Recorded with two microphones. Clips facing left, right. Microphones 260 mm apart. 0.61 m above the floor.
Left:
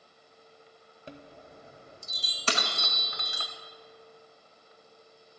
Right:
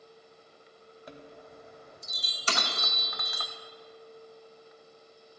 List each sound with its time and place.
1.1 s a chime: 30° left (ahead or behind), 0.8 m
2.5 s breaking glass: 65° left (ahead or behind), 1.1 m